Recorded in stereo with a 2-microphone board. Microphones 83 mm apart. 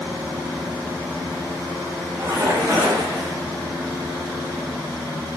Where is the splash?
30° right (ahead or behind), 1.7 m.